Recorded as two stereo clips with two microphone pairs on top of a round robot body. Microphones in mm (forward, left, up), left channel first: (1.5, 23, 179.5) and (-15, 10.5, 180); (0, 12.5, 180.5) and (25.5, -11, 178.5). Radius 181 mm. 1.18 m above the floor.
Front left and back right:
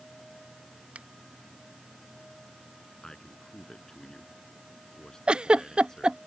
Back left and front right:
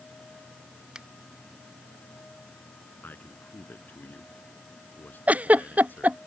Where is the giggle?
90° right.